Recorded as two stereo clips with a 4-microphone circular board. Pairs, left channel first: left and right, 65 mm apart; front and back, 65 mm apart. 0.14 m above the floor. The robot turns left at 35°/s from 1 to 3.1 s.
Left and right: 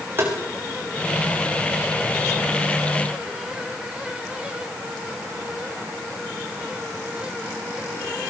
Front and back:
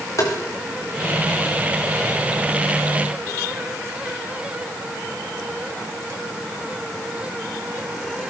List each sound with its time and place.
0.2 s tapping: 40° right, 6.5 m